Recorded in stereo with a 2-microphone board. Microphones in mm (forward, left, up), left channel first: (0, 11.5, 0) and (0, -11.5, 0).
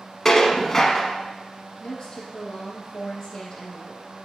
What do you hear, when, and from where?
0.2 s dishes clattering: 15° left (ahead or behind), 0.9 m
1.8 s a woman speaking: 40° left (ahead or behind), 3 m